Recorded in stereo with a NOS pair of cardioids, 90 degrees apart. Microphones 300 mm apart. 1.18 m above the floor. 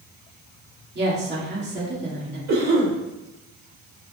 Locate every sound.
0.9 s a woman speaking: 35° right, 2.5 m
2.5 s a cough: 60° right, 1.9 m